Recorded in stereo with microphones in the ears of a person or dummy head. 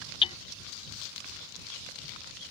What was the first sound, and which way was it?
Hammering, 30° left (ahead or behind).